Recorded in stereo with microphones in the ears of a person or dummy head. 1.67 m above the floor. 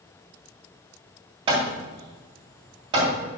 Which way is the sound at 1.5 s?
30° right (ahead or behind).